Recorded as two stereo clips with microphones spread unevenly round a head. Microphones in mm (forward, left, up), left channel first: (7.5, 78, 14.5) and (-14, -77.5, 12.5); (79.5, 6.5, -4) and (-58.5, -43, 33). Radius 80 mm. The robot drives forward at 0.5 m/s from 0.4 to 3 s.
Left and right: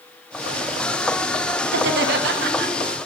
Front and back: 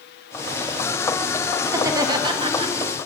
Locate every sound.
1.7 s laughter: 85° right, 1.4 m; by 2.7 s 105° right, 1.4 m